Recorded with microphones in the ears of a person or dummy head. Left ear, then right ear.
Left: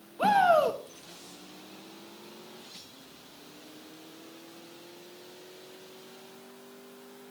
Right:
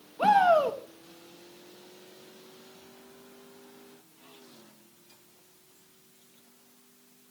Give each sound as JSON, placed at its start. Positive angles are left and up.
{"t": 0.2, "sound": "a shout", "side_deg": -10, "distance_m": 1.5}